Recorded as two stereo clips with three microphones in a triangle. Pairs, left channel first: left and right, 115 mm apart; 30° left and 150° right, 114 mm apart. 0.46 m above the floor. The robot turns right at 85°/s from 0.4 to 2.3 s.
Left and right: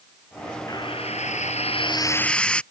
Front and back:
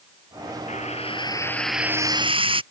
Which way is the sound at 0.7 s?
35° left.